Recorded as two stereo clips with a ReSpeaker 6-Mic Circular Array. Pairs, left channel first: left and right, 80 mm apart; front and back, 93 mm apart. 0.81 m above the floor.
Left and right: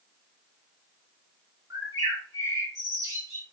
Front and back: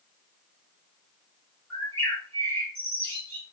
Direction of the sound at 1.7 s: 70° right.